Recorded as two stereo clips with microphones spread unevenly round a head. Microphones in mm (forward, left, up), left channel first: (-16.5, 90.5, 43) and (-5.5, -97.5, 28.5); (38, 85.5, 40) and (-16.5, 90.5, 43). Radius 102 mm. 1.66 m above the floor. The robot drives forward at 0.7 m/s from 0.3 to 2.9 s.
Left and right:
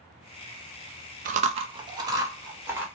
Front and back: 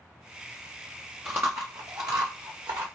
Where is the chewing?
120° right, 0.5 m; by 2.9 s 165° right, 1.4 m.